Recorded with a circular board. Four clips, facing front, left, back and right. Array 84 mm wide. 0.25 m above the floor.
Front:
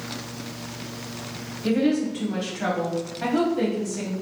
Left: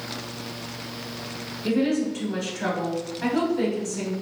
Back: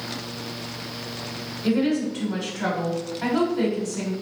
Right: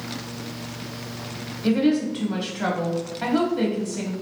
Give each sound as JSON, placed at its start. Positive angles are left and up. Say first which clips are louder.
{"t": 1.6, "sound": "a woman speaking", "louder": "right 3 dB, even", "azimuth_deg": -85, "distance_m": 1.5}